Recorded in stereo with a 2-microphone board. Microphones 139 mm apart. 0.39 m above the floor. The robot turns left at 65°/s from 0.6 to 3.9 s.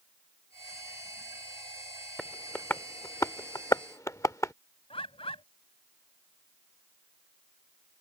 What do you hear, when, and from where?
2.2 s tapping: centre (ahead or behind); by 4.5 s 25° left (ahead or behind)
4.9 s a bird: 45° left (ahead or behind)